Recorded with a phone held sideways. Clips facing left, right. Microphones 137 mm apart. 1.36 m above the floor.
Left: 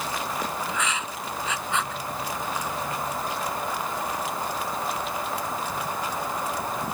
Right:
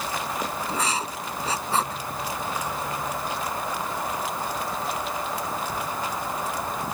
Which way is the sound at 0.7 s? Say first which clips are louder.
Right 2 dB; 35° right (ahead or behind).